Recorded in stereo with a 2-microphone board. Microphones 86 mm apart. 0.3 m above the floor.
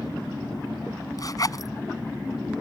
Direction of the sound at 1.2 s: 45° left (ahead or behind).